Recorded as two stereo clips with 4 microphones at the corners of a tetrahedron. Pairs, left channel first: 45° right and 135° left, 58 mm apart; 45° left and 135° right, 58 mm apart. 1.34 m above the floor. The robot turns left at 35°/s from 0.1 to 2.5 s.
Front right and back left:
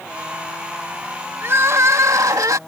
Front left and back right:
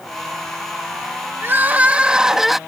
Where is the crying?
Straight behind; by 2.6 s 140° left.